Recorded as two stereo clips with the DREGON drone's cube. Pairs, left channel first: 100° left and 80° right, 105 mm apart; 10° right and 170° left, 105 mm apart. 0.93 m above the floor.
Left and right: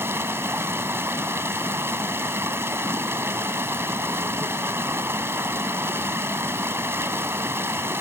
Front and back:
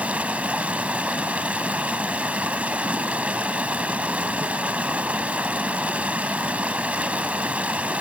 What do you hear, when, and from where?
0.0 s running water: 125° right, 0.9 m